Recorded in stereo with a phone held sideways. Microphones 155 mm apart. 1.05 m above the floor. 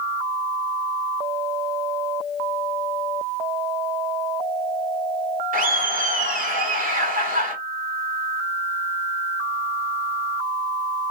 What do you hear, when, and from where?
5.5 s laughter: 65° right (ahead or behind), 1.7 m